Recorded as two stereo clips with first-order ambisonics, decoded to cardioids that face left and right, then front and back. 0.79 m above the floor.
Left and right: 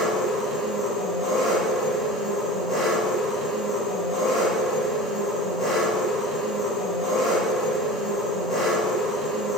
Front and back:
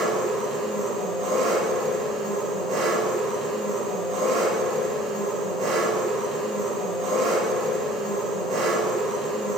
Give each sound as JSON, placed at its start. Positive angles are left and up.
{"t": 0.0, "sound": "an engine running", "azimuth_deg": 160, "distance_m": 2.5}